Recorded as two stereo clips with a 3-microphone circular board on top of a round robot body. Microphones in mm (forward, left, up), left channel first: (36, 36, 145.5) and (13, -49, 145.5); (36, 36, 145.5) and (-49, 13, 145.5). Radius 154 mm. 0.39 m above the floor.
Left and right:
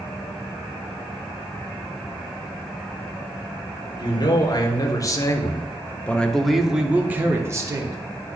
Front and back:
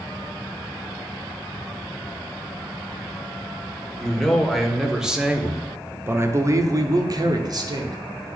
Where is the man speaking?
100° left, 2 m; by 8.0 s 145° right, 1.5 m.